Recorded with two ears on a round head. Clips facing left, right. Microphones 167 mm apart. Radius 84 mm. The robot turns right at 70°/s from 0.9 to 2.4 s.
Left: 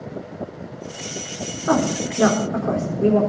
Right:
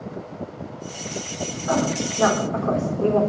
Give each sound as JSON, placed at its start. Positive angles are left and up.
{"t": 1.7, "sound": "a woman speaking", "side_deg": 70, "distance_m": 3.5}